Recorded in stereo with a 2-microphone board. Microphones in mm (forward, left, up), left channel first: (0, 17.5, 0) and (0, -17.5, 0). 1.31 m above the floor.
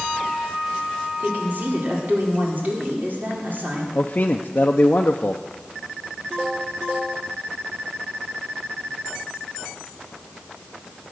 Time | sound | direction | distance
1.2 | a woman speaking | 60° right (ahead or behind) | 4.5 m
4.0 | a man speaking | 50° left (ahead or behind) | 0.7 m